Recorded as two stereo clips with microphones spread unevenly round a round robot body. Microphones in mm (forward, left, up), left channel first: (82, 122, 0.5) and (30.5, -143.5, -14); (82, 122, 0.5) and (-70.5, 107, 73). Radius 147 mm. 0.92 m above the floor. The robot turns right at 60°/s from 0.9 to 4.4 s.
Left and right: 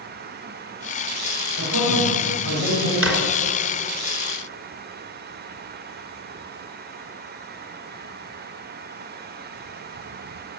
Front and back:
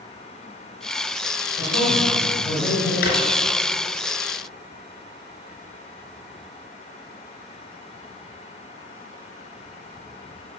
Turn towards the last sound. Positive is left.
turn(degrees=65)